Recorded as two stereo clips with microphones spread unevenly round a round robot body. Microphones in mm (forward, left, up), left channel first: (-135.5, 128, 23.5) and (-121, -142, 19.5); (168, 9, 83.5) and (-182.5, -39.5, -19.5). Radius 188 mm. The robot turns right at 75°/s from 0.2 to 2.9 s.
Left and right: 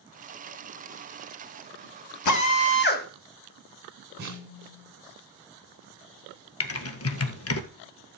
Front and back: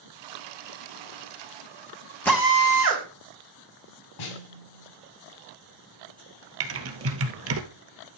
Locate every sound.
2.2 s a drill: 100° left, 3.5 m; by 3.1 s 145° left, 3.5 m
4.2 s a snare drum: 20° right, 5 m
6.6 s typing on a keyboard: 130° left, 2.0 m